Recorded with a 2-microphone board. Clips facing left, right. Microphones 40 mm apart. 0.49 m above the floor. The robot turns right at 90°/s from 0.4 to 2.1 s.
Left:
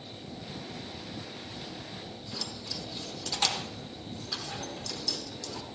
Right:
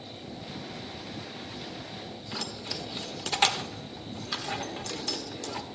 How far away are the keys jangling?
About 0.9 m.